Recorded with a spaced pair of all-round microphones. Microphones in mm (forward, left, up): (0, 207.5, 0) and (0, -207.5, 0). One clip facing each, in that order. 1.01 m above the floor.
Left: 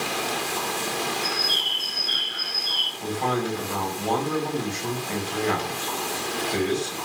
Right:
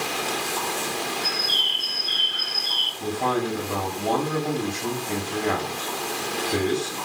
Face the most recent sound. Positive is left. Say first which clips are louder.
# right 1 dB
turn(degrees=-50)  # may be behind; listen again after turning